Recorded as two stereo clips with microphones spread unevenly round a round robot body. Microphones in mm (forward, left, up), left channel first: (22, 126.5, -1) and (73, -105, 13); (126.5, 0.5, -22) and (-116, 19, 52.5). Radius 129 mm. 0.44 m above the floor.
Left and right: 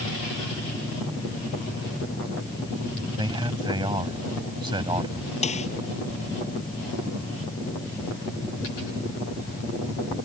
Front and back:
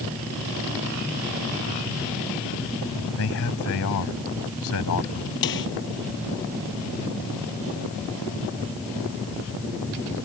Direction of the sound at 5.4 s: 40° left.